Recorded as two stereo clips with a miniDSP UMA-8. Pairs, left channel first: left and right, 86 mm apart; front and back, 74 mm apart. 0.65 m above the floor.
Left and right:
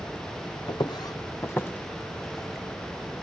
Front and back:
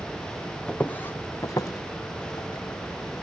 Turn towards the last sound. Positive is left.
turn(degrees=-5)